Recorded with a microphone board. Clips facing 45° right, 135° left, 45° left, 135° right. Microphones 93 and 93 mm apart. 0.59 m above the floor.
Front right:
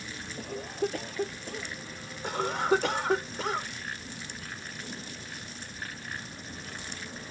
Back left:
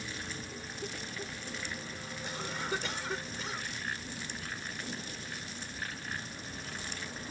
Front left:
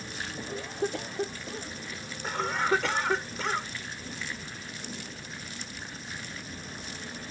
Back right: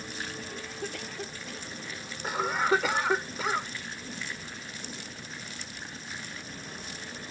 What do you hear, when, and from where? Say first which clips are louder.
0.4 s a cough: front right 10 dB, front left 6 dB; 20° right
2.2 s a cough: front right 11 dB, back right 1 dB; 55° right